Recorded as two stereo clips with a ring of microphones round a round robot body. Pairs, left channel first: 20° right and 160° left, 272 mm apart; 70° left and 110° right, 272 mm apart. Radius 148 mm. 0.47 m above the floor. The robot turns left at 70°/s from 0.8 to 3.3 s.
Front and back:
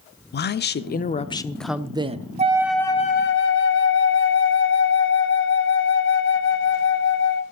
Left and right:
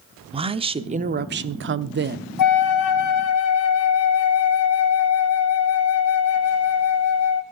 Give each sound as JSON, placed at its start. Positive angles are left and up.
{"t": 0.3, "sound": "a woman speaking", "azimuth_deg": -50, "distance_m": 0.9}
{"t": 2.4, "sound": "a flute", "azimuth_deg": 90, "distance_m": 1.2}